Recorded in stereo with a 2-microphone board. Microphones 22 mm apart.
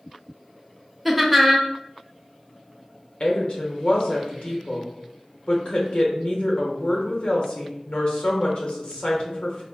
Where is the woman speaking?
55° left (ahead or behind), 0.8 m.